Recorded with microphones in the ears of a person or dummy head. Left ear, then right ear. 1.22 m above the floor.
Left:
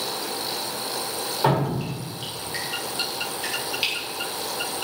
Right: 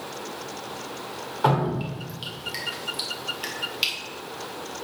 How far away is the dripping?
About 1.6 m.